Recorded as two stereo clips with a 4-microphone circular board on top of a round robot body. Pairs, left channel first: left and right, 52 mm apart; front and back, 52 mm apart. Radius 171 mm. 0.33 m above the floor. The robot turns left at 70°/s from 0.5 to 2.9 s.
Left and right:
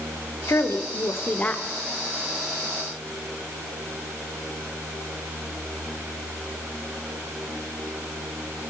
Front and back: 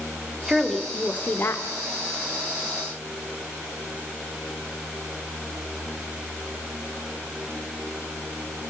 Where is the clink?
I don't hear a clink.